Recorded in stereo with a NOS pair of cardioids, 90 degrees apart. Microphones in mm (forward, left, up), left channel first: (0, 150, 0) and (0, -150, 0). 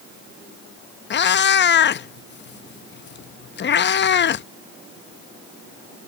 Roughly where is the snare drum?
No snare drum in this recording.